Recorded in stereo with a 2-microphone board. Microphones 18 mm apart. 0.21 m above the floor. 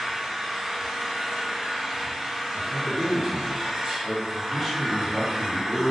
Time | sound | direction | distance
0.0 | an engine running | 40° right (ahead or behind) | 0.9 m
2.5 | a man speaking | 20° left (ahead or behind) | 1.1 m